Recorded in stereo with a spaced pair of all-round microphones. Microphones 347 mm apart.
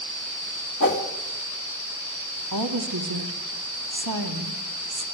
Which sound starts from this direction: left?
A whoosh, at 0.8 s.